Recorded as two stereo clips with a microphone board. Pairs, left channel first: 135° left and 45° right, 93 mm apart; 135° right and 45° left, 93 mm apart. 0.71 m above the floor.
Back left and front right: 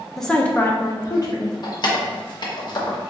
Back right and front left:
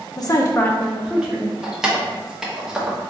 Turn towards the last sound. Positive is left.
turn(degrees=125)